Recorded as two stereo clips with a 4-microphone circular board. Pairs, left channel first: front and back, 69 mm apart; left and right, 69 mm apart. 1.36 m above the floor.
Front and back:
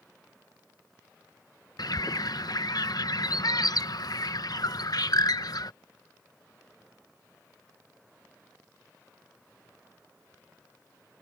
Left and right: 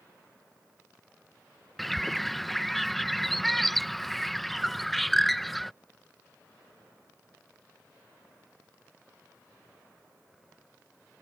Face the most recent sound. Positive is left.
turn(degrees=0)